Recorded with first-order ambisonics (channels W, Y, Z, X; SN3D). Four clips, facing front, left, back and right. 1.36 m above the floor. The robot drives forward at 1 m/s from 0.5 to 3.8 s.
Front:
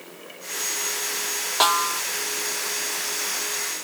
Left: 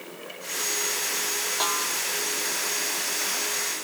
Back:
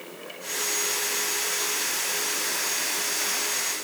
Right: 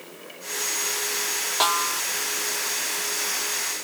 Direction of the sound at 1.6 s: 20° right.